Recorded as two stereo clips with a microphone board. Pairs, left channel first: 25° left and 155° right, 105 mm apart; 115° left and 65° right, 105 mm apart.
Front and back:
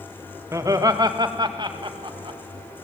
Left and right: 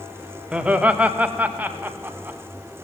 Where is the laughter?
135° right, 1.2 m.